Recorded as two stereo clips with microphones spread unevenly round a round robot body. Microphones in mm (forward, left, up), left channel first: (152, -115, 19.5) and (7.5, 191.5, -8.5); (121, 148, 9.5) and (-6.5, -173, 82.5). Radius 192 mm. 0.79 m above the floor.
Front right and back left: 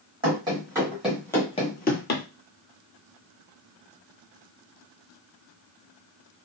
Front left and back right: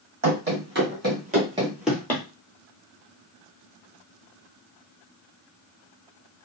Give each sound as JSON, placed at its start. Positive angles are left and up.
{"t": 0.2, "sound": "running footsteps", "azimuth_deg": -165, "distance_m": 1.8}